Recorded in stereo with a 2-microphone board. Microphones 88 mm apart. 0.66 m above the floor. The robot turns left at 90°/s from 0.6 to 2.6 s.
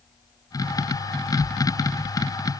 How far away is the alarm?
No alarm in this recording.